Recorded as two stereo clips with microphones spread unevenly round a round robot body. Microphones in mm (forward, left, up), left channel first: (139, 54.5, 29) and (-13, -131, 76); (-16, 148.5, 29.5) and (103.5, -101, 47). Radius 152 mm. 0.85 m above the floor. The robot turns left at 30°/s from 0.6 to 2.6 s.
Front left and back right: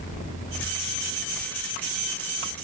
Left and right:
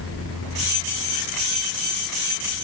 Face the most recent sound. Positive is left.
No sound to turn to.